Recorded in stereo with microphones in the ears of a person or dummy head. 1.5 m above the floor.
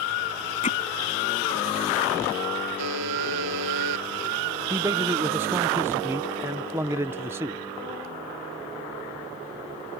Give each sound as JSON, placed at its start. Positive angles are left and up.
{"t": 0.6, "sound": "hammering", "side_deg": 30}
{"t": 2.8, "sound": "a buzzer", "side_deg": -75}
{"t": 4.7, "sound": "a man speaking", "side_deg": -10}